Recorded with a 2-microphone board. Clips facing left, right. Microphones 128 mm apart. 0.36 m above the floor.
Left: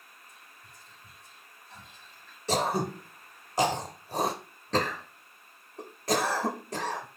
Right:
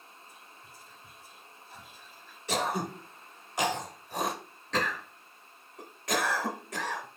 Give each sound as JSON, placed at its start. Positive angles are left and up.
{"t": 0.3, "sound": "whispering", "side_deg": -5, "distance_m": 1.2}
{"t": 2.5, "sound": "throat clearing", "side_deg": 35, "distance_m": 0.6}